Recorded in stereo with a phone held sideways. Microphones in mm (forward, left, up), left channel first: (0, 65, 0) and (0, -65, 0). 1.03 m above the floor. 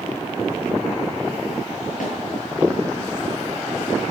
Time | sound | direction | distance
2.0 | a snare drum | 85° left | 6.5 m